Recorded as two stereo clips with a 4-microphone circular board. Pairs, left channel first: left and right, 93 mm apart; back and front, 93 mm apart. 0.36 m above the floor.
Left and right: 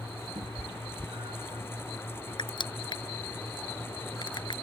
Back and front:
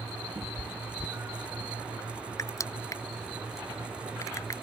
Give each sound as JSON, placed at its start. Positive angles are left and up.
{"t": 0.3, "sound": "a cat meowing", "azimuth_deg": -60}
{"t": 2.4, "sound": "crushing", "azimuth_deg": 125}